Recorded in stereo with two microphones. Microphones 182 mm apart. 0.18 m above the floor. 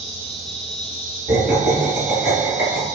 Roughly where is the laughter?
Centre.